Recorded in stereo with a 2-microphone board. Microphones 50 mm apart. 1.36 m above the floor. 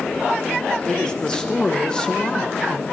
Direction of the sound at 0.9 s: 20° left (ahead or behind).